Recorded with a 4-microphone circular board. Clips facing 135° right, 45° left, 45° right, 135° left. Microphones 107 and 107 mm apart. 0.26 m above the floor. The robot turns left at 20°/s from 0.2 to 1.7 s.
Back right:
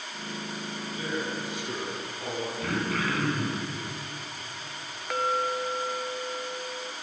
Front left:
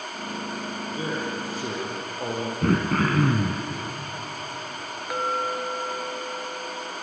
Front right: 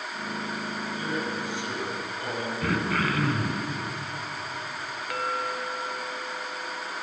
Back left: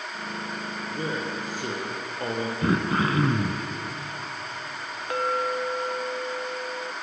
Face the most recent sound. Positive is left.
turn(degrees=125)